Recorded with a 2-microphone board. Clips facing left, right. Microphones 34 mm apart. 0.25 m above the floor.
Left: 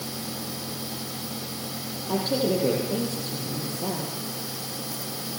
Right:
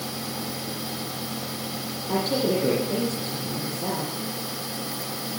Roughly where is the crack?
I don't hear a crack.